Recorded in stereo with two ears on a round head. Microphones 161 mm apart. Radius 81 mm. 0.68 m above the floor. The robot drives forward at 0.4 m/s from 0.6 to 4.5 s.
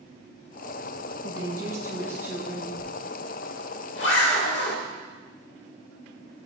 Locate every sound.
1.2 s a woman speaking: 20° right (ahead or behind), 0.5 m; by 2.7 s 10° right (ahead or behind), 1.0 m
2.8 s a zipper: 80° left, 1.1 m; by 4.8 s 65° left (ahead or behind), 1.2 m